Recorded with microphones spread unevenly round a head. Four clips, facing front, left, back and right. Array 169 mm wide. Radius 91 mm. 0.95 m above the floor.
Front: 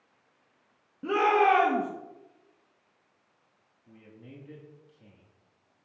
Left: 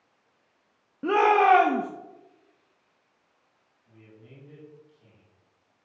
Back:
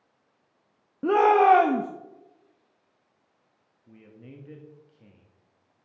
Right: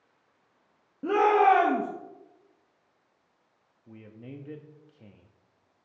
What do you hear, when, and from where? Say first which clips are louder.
1.0 s a shout: left 1 dB, back 5 dB; 175° left, 1.0 m
3.9 s a man speaking: right 7 dB, back 2 dB; 95° right, 1.3 m